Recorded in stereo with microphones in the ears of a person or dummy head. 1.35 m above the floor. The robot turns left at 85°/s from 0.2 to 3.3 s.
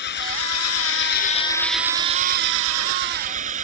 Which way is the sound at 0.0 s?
125° left.